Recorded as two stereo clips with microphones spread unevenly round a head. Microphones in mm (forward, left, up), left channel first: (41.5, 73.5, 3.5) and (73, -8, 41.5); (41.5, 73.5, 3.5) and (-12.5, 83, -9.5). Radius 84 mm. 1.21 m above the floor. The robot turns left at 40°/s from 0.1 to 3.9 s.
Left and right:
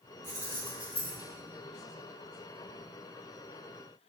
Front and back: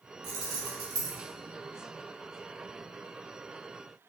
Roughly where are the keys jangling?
Behind.